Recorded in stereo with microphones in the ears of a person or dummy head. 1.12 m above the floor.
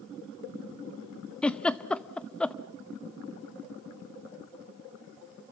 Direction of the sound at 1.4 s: 5° left (ahead or behind).